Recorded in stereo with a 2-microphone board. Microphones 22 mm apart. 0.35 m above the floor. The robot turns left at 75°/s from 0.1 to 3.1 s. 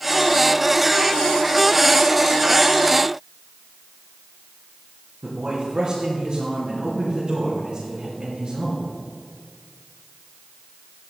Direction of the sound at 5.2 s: 50° right (ahead or behind).